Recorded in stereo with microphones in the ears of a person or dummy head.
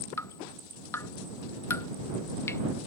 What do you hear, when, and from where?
0.2 s dripping: 20° left (ahead or behind)